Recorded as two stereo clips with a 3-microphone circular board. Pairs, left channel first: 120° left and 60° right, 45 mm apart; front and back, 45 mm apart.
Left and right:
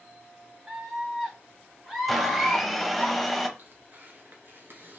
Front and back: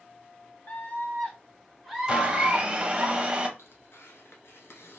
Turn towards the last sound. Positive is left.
turn(degrees=-25)